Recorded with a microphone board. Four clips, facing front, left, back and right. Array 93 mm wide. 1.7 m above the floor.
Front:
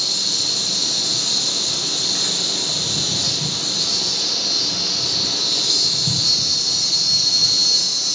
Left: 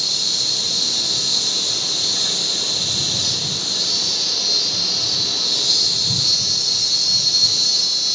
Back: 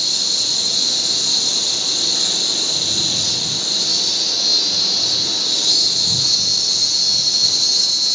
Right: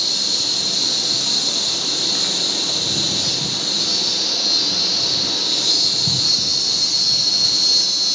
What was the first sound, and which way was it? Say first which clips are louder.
An insect: right 2 dB, back 1 dB; 60° right.